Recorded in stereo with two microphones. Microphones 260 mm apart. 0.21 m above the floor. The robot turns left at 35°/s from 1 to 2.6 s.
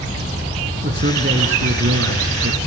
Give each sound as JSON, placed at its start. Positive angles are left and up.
{"t": 0.8, "sound": "a man speaking", "azimuth_deg": -50, "distance_m": 2.0}